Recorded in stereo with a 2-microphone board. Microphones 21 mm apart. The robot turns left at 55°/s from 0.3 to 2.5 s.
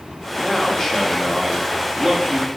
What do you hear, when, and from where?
0.4 s a man speaking: 55° left, 1.3 m; by 2.5 s 65° right, 1.3 m